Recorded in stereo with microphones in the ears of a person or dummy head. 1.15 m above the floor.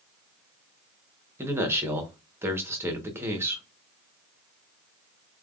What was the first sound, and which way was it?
A man speaking, 15° right (ahead or behind).